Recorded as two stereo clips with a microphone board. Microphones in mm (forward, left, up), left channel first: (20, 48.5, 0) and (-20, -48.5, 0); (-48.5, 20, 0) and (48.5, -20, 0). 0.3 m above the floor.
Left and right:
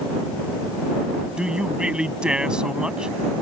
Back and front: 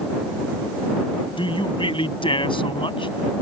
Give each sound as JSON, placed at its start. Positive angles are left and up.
{"t": 1.4, "sound": "a man speaking", "azimuth_deg": 165}